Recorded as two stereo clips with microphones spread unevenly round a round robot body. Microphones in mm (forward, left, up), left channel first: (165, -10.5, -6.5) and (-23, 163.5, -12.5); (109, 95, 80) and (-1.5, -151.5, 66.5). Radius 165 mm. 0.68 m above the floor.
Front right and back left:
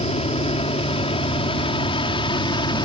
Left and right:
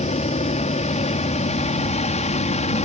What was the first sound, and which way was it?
An aircraft, 10° left.